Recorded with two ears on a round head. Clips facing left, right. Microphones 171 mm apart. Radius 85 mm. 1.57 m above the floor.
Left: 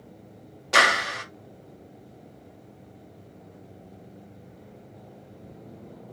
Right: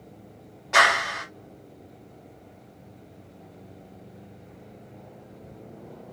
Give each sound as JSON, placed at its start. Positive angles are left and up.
{"t": 0.7, "sound": "a clap", "side_deg": 45, "distance_m": 1.1}